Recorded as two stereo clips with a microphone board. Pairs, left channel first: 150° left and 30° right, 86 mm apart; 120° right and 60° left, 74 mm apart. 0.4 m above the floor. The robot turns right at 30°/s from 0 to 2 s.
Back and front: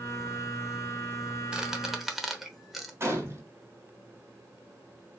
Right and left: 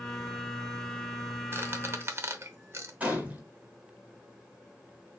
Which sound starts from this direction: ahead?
A gunshot, at 3.0 s.